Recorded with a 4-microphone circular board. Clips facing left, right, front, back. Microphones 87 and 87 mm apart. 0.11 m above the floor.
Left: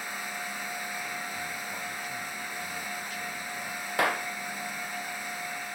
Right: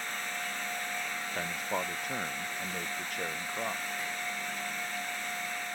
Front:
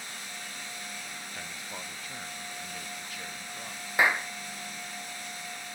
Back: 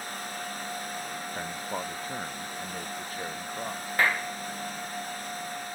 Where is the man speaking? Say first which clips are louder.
Right 3 dB, back 10 dB; 125° right; by 3.9 s 130° right.